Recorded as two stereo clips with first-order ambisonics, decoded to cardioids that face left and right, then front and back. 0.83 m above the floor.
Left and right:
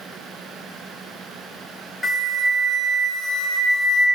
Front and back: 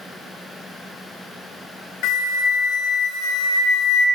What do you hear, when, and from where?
2.0 s a flute: 5° left, 0.7 m